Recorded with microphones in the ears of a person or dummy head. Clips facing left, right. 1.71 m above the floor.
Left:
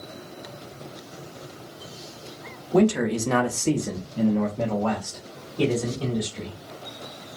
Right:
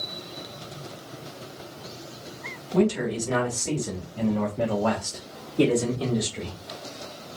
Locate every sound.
2.7 s a man speaking: 75° left (ahead or behind), 0.8 m; by 6.6 s 45° right (ahead or behind), 1.4 m